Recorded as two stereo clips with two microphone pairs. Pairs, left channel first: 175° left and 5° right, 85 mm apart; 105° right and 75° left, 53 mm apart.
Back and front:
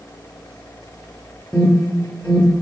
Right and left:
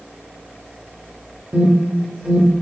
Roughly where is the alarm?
Left.